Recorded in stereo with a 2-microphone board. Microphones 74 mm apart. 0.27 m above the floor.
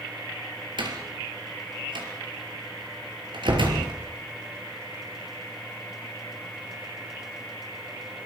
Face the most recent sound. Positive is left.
turn(degrees=-80)